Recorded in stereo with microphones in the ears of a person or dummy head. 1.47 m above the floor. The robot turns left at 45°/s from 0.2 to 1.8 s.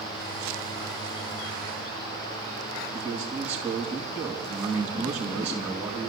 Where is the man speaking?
10° right (ahead or behind), 4 m.